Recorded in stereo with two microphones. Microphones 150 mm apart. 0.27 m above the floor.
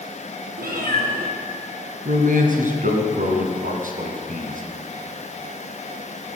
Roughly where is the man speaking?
Right.